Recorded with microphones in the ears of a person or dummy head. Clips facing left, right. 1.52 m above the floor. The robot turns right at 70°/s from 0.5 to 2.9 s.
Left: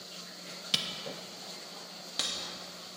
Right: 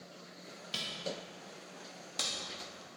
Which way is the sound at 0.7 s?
70° left (ahead or behind).